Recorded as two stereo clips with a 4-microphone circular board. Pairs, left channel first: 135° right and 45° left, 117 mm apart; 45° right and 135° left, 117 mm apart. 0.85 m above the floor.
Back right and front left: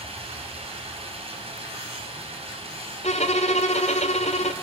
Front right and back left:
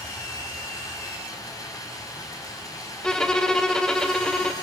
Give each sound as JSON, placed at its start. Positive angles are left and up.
{"t": 0.0, "sound": "running water", "azimuth_deg": 15, "distance_m": 4.5}
{"t": 3.0, "sound": "a violin", "azimuth_deg": -130, "distance_m": 1.3}